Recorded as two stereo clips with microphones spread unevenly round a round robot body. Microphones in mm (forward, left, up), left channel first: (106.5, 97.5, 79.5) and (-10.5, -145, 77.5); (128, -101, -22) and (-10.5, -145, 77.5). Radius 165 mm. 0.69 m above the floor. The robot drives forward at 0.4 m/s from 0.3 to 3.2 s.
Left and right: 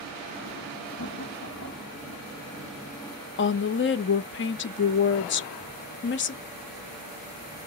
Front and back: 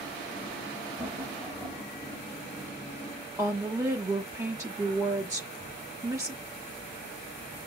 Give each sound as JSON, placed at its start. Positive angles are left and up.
{"t": 1.0, "sound": "laughter", "azimuth_deg": 105, "distance_m": 2.0}
{"t": 3.4, "sound": "a woman speaking", "azimuth_deg": 95, "distance_m": 0.6}